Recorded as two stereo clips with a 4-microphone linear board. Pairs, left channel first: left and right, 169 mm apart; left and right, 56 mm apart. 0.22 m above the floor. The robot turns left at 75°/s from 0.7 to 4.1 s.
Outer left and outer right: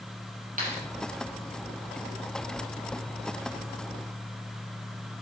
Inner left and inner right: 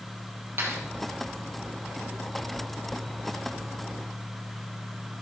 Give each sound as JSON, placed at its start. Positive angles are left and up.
{"t": 0.6, "sound": "a clap", "side_deg": -55, "distance_m": 5.5}